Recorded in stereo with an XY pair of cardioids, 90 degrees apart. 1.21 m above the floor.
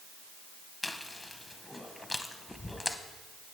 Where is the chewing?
20° left, 0.8 m.